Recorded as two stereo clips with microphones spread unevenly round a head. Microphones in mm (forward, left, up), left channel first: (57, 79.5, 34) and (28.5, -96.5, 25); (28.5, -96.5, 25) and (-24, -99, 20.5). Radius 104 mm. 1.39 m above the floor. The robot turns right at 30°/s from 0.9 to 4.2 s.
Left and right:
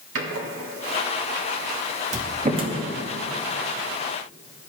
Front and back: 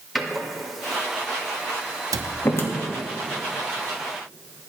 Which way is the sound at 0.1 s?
90° right.